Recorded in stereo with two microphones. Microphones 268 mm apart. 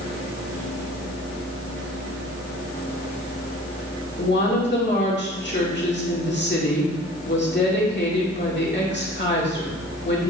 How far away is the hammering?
No hammering in this recording.